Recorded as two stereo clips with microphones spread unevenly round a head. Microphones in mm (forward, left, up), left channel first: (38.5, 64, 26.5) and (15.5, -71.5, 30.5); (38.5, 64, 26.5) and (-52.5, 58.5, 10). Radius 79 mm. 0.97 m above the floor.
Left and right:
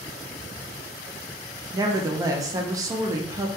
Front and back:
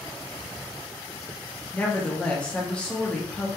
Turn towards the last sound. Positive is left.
turn(degrees=-80)